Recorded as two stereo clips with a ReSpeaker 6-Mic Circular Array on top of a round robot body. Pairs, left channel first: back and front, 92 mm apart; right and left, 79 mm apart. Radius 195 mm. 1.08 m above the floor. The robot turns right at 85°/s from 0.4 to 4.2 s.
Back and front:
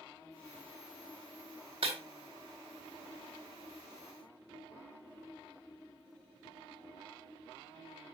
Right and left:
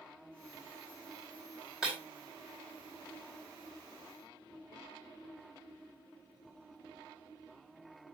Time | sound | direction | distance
1.8 | breaking glass | 10° left | 4.5 m